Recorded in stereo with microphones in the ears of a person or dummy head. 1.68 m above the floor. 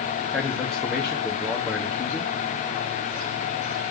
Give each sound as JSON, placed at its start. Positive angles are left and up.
{"t": 0.3, "sound": "a man speaking", "side_deg": 0, "distance_m": 1.3}